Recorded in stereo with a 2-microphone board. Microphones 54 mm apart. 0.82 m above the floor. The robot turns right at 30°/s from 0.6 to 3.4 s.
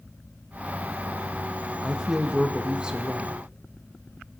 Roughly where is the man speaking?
Centre.